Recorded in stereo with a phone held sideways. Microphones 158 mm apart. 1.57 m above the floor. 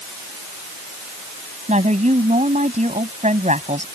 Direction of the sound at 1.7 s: 45° right (ahead or behind).